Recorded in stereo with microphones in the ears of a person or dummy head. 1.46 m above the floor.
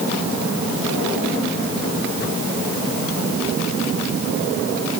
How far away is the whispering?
No whispering in this recording.